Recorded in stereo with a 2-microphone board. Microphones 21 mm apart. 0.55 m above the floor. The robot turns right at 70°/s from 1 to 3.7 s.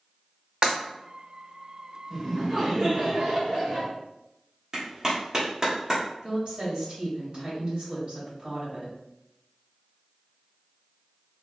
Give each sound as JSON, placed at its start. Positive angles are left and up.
{"t": 0.6, "sound": "breaking glass", "side_deg": -40, "distance_m": 1.0}
{"t": 2.1, "sound": "laughter", "azimuth_deg": 180, "distance_m": 1.3}
{"t": 4.7, "sound": "a clap", "side_deg": -30, "distance_m": 1.0}
{"t": 6.2, "sound": "a woman speaking", "side_deg": -40, "distance_m": 1.7}